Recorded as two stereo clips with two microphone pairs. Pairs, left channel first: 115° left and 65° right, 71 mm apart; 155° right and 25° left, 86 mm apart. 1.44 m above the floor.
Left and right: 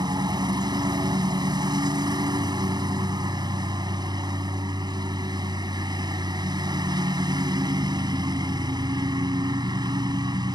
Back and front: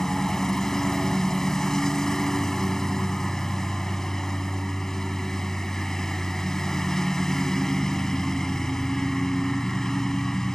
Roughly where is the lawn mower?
Right.